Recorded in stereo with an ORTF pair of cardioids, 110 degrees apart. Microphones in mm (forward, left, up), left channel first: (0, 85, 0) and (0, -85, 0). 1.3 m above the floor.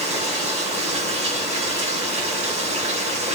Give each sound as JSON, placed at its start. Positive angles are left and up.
{"t": 0.0, "sound": "running water", "azimuth_deg": -40, "distance_m": 3.0}